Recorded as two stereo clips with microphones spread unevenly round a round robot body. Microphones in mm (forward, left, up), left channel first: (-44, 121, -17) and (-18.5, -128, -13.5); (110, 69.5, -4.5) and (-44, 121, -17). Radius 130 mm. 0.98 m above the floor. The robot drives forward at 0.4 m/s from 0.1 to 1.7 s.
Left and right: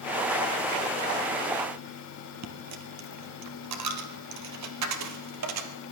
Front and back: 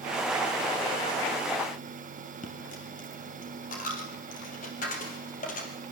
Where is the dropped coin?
70° right, 2.5 m.